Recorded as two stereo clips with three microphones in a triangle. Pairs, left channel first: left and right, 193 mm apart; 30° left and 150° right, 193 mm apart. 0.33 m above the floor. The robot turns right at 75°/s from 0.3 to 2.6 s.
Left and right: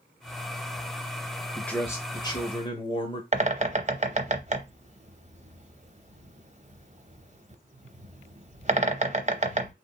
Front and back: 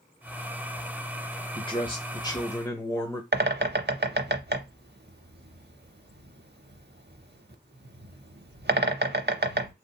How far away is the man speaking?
About 0.9 m.